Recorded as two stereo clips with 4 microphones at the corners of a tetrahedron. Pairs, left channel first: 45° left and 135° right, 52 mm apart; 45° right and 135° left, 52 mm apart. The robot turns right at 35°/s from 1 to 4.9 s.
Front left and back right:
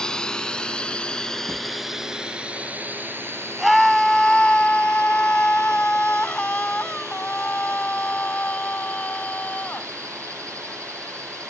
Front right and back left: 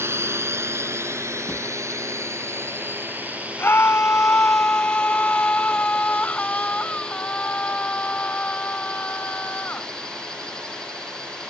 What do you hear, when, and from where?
0.0 s a drone: 120° left; by 11.5 s 125° right
1.5 s a drawer: 105° right; by 1.6 s 100° right
3.6 s a scream: 50° right; by 9.9 s straight ahead